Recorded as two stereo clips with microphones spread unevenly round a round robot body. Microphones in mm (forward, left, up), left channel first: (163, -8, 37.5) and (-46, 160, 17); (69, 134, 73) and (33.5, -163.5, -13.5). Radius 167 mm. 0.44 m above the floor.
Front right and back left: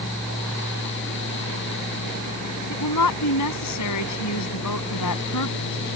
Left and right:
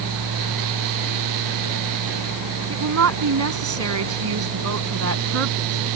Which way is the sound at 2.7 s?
65° right.